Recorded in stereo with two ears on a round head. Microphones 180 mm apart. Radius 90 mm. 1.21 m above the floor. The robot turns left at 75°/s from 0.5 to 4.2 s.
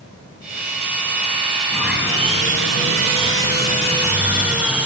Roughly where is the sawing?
Ahead.